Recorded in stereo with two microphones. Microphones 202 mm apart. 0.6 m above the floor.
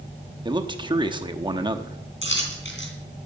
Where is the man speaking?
25° right (ahead or behind), 0.9 m.